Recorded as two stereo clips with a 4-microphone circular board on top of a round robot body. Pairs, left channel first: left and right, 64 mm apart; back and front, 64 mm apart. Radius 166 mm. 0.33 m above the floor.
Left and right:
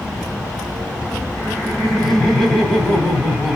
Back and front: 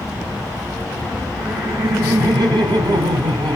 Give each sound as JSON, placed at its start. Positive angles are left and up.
{"t": 1.4, "sound": "laughter", "azimuth_deg": 10, "distance_m": 3.5}